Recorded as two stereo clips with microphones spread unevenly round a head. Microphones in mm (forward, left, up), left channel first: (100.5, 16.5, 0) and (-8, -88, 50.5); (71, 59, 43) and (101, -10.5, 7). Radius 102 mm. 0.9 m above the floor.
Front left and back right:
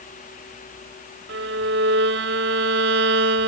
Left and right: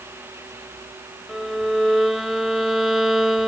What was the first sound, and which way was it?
A violin, 160° right.